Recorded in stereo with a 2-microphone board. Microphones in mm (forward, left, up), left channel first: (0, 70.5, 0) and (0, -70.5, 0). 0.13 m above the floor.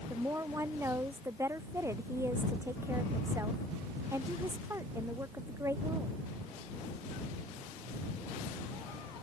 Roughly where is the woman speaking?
Centre.